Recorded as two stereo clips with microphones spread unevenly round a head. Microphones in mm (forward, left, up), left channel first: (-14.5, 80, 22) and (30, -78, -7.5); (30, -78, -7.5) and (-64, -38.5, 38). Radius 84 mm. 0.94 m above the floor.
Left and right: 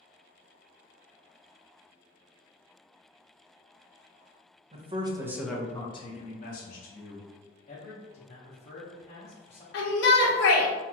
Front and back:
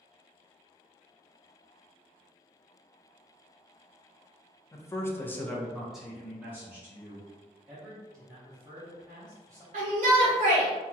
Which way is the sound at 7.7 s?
70° left.